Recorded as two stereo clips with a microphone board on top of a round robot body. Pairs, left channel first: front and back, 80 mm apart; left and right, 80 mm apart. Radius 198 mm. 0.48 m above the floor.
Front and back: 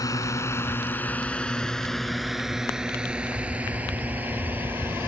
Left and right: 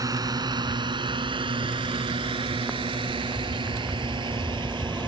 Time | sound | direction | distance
0.0 | a drone | 45° right | ?